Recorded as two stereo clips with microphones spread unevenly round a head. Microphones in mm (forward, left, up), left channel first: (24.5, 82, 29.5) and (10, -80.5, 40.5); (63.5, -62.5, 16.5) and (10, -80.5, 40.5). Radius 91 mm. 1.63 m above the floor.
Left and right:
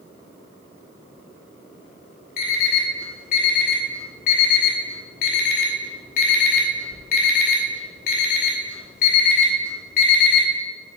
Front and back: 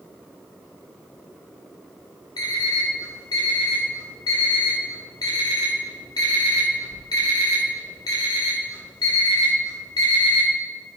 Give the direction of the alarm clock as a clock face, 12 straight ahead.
10 o'clock.